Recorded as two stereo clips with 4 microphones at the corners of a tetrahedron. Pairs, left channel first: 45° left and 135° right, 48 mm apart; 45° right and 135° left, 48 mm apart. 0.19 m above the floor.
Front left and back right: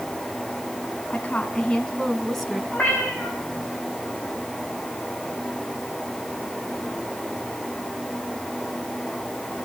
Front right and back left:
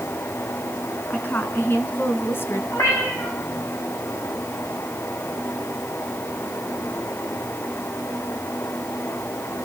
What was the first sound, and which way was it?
A woman speaking, 5° right.